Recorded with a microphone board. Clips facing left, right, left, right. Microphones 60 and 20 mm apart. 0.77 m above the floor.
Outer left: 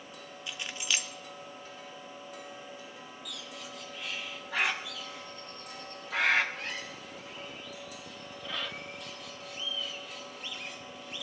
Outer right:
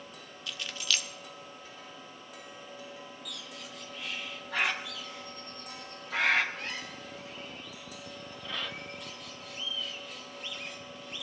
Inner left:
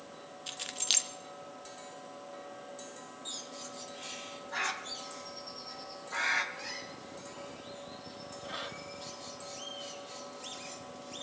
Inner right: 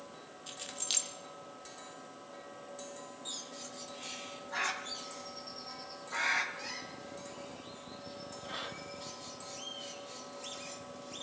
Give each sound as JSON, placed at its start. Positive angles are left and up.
{"t": 0.5, "sound": "keys jangling", "side_deg": 20, "distance_m": 0.9}
{"t": 3.2, "sound": "a bird", "side_deg": 0, "distance_m": 1.1}